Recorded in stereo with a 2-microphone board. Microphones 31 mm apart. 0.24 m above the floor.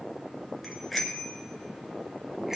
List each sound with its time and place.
0.6 s a bicycle bell: centre (ahead or behind), 2 m; by 2.6 s 15° right (ahead or behind), 3 m